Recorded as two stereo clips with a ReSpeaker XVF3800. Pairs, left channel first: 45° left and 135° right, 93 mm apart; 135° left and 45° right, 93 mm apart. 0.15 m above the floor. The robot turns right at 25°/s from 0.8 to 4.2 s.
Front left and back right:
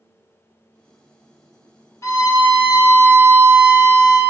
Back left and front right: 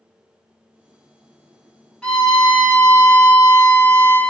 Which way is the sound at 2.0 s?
60° left.